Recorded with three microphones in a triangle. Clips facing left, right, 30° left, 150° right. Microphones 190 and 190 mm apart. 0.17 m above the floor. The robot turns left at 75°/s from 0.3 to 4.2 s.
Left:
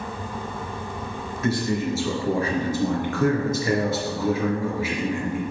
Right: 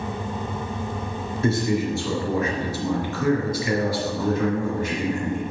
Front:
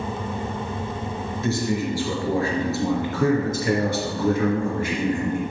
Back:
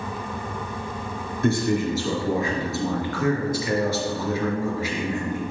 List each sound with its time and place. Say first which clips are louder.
1.4 s a man speaking: right 2 dB, back 3 dB; 145° right, 3 m; by 5.4 s 10° left, 3 m